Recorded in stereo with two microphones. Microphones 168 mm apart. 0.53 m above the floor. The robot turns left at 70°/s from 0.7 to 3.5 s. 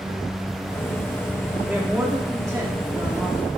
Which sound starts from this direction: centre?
A man speaking, at 1.7 s.